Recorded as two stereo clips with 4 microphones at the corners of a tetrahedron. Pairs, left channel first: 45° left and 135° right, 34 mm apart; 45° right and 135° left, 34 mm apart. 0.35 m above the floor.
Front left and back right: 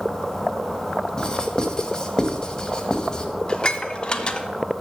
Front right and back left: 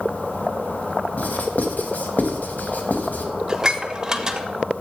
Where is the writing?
20° right, 0.8 m.